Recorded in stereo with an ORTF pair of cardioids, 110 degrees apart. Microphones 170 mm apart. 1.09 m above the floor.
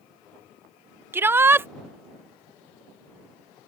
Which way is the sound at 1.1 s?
15° right.